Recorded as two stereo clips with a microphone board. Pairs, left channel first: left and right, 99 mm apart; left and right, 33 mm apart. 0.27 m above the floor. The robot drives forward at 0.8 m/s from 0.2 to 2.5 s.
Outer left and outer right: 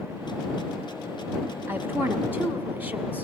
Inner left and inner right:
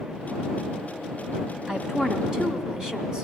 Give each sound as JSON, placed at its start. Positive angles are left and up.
{"t": 1.7, "sound": "a woman speaking", "side_deg": -20, "distance_m": 1.9}